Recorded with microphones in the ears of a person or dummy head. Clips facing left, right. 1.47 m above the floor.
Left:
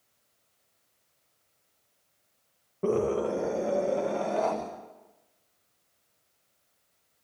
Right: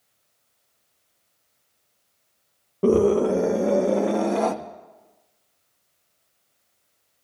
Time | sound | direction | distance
2.8 | a scream | 55° right (ahead or behind) | 0.9 m